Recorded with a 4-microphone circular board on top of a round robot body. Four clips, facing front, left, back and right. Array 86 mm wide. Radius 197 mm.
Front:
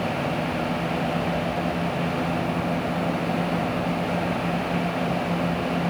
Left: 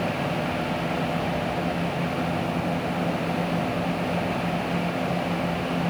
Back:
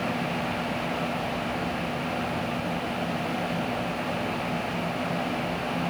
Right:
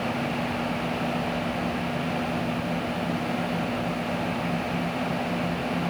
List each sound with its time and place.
Only background noise.